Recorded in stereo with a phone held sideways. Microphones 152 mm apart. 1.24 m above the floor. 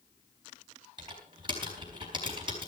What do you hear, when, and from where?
1.0 s typing on a keyboard: 35° right (ahead or behind), 4.5 m